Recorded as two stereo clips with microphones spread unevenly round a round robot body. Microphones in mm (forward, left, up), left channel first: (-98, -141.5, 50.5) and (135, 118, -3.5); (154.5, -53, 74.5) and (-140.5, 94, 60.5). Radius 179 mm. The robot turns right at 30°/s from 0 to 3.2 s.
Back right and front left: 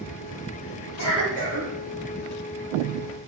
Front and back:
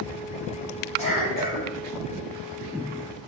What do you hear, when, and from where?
1.0 s a cough: 90° right, 2.0 m; by 1.7 s 70° right, 2.0 m